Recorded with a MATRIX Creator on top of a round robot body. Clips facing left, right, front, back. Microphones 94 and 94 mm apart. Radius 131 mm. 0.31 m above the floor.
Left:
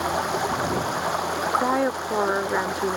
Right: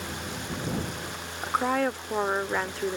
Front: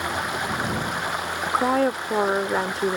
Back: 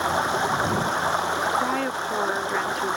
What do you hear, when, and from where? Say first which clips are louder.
0.0 s running water: left 12 dB, back 4 dB; 120° left
1.4 s a woman speaking: left 2 dB, front 3 dB; 25° left